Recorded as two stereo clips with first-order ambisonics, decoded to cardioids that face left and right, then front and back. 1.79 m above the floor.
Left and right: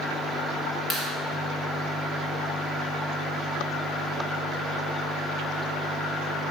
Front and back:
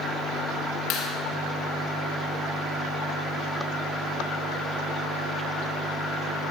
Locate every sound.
0.9 s a clap: 20° left, 3 m